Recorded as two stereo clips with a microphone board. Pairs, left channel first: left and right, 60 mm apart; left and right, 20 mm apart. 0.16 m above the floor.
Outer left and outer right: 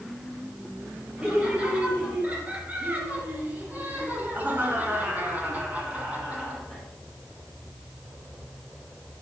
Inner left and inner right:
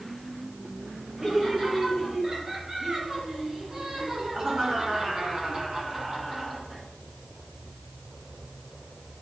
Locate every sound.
1.2 s laughter: 20° right (ahead or behind), 4 m; by 6.8 s 15° right (ahead or behind), 2 m